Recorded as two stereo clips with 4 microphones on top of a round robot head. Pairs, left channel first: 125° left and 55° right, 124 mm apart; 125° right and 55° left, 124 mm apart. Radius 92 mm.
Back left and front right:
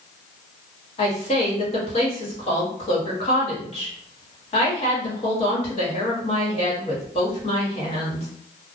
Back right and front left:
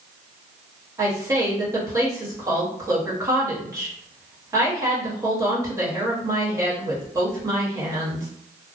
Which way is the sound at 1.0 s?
110° left.